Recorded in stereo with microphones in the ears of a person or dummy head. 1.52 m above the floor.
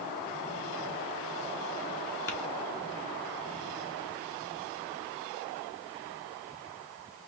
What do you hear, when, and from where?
2.3 s tapping: 10° left (ahead or behind), 1.5 m